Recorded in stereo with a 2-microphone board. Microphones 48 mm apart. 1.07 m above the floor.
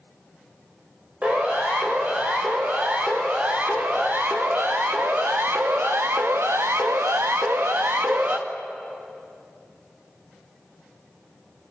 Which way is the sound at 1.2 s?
30° right (ahead or behind).